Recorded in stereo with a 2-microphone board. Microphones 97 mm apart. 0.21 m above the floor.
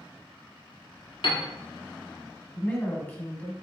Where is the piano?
60° left (ahead or behind), 1.1 m.